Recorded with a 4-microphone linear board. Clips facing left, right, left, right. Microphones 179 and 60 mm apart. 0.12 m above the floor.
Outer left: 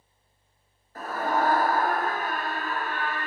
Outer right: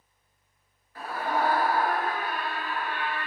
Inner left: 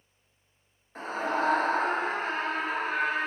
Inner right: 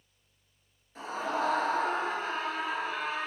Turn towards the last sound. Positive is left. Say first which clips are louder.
# outer left 2 dB, inner left 3 dB
turn(degrees=45)  # may be behind; listen again after turning